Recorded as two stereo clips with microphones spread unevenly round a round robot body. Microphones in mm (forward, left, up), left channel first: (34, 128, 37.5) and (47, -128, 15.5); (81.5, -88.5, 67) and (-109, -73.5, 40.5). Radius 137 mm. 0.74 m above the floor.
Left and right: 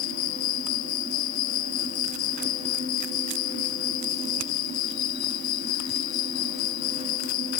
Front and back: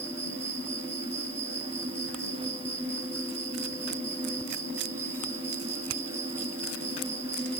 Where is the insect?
95° left.